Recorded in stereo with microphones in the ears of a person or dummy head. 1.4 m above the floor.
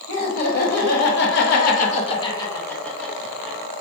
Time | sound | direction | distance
0.1 | laughter | 40° left (ahead or behind) | 1.1 m